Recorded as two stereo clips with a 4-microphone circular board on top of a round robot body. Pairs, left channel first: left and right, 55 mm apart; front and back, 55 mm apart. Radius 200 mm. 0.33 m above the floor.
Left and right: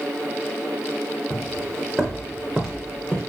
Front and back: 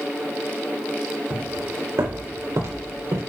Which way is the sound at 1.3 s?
175° right.